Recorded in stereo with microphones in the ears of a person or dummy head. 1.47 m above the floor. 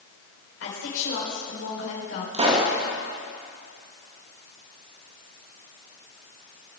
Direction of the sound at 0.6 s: 85° left.